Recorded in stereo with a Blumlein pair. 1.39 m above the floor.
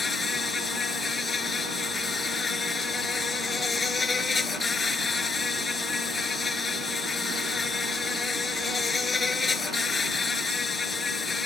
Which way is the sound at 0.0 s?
15° left.